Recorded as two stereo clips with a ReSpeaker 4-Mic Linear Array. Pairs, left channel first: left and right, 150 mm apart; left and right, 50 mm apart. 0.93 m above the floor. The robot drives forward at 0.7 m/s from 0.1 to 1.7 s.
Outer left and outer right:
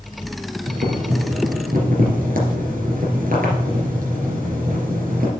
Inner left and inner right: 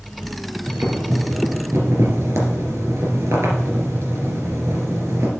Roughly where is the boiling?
Right.